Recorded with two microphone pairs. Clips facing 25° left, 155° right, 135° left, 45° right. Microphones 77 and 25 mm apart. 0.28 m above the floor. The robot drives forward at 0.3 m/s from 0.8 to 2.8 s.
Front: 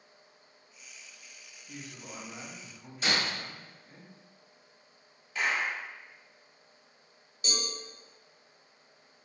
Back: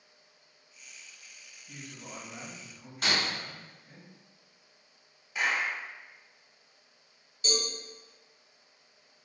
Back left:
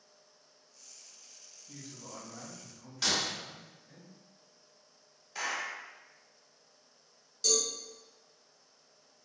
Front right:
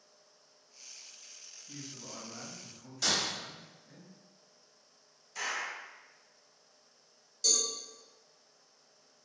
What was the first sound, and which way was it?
A man speaking, 75° right.